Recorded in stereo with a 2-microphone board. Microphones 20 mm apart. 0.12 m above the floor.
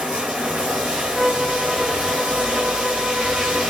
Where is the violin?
55° right (ahead or behind), 3.5 m.